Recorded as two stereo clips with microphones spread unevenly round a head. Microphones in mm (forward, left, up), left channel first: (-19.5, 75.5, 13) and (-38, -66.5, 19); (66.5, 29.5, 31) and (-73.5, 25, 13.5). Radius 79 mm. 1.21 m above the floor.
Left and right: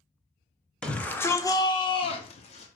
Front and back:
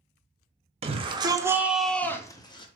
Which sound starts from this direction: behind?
A shout, at 0.8 s.